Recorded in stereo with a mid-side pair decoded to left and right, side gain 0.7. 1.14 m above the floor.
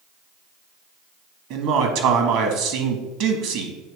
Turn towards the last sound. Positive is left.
turn(degrees=-65)